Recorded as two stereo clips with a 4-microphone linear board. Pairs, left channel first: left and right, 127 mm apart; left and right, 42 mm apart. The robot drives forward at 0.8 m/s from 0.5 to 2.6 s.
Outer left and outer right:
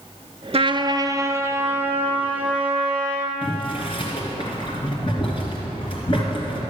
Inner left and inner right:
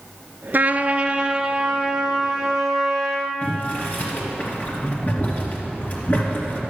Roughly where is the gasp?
I don't hear a gasp.